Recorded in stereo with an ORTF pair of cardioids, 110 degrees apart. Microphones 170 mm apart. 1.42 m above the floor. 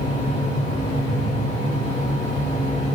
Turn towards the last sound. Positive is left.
turn(degrees=40)